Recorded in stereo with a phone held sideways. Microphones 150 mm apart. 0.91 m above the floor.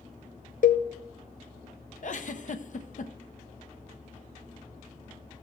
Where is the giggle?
55° left (ahead or behind), 0.6 m.